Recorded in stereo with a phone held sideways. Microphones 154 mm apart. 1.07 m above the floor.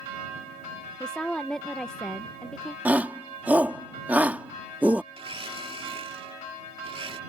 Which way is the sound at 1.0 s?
5° left (ahead or behind).